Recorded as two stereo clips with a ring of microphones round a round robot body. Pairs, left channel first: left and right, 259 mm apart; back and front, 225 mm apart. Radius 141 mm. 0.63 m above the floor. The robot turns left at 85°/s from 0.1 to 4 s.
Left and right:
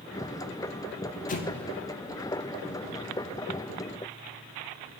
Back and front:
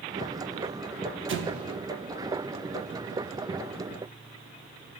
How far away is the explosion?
About 0.9 m.